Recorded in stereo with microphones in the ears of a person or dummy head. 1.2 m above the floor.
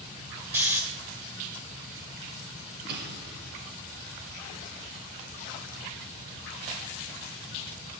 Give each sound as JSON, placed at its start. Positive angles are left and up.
{"t": 0.5, "sound": "snoring", "side_deg": -10, "distance_m": 2.0}
{"t": 2.9, "sound": "an explosion", "side_deg": -55, "distance_m": 3.5}